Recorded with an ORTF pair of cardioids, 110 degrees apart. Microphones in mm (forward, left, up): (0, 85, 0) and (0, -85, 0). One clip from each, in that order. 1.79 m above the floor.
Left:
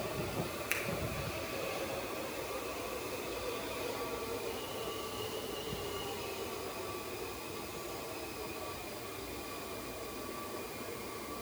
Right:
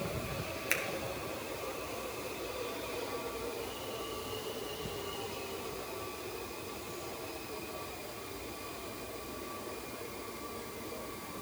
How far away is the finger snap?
About 1.8 m.